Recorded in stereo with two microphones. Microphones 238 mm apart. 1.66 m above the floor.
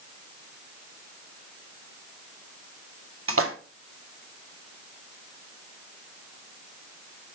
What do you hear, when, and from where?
3.3 s a splash: 65° right (ahead or behind), 1.2 m